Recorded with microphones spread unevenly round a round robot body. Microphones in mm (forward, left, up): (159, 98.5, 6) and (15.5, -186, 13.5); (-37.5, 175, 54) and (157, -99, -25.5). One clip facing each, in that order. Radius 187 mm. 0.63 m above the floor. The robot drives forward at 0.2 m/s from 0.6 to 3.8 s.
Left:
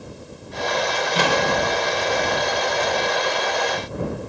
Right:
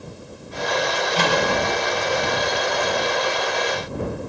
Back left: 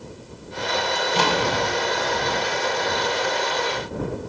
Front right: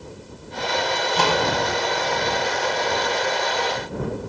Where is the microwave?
95° left, 2 m; by 1.4 s 100° left, 2.5 m.